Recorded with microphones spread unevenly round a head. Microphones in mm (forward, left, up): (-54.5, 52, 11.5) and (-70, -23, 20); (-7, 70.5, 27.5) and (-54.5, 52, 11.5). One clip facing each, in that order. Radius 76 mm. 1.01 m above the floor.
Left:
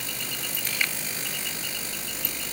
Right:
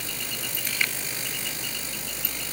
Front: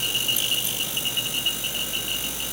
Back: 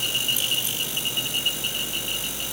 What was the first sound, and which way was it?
Only background noise.